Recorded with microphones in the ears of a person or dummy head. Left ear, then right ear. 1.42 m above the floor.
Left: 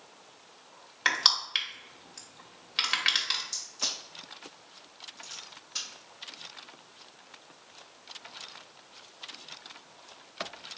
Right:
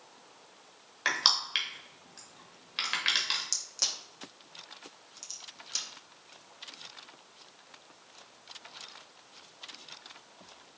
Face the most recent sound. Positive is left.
turn(degrees=-75)  # may be behind; listen again after turning